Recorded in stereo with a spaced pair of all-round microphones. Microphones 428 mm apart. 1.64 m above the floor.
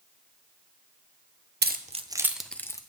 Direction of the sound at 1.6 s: 25° right (ahead or behind).